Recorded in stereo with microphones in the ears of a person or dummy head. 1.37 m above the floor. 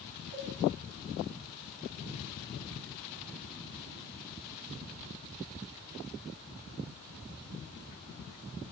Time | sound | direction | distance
0.3 | a cowbell | 85° right | 1.4 m